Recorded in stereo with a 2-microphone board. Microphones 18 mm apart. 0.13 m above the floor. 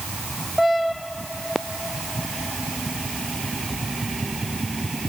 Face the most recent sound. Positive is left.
No sound to turn to.